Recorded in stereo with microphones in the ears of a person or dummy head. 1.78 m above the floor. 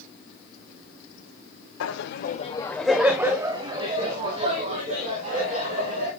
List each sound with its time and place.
1.8 s laughter: 75° left (ahead or behind), 0.7 m; by 6.1 s 45° right (ahead or behind), 3 m